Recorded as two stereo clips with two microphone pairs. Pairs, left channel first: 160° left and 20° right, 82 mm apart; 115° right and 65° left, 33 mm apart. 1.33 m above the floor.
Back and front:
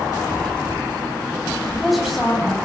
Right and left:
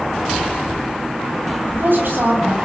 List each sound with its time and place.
1.6 s a woman speaking: 65° left, 9.5 m